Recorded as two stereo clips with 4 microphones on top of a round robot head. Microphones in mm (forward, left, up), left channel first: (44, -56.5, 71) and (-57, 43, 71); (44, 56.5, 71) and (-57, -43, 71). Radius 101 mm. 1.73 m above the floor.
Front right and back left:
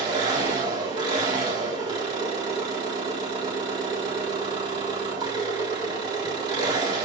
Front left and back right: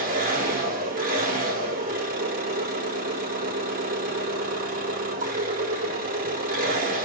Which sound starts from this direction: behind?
An engine running, at 0.0 s.